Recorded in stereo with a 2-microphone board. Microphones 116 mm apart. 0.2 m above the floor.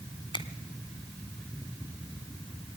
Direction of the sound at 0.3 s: 45° left (ahead or behind).